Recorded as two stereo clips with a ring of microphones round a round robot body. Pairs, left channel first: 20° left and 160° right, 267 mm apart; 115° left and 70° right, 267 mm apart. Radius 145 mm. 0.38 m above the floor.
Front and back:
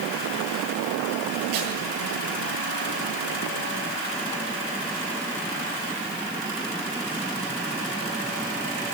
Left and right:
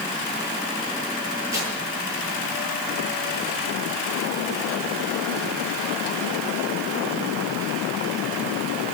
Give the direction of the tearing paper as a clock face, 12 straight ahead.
5 o'clock.